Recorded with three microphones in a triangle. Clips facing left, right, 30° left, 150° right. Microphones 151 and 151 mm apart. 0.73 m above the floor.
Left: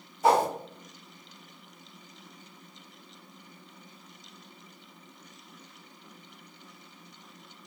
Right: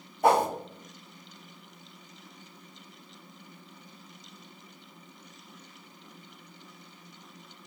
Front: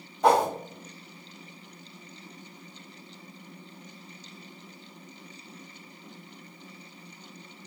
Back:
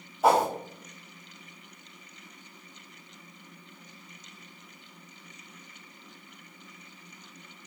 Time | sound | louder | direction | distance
0.2 | a whoosh | even, front 1 dB | 65° right | 1.1 m